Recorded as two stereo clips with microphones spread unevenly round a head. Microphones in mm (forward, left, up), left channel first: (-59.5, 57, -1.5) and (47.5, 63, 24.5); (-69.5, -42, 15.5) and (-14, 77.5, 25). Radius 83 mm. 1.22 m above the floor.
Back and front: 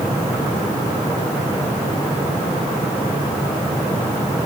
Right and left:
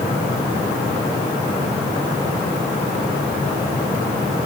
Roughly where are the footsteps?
I don't hear footsteps.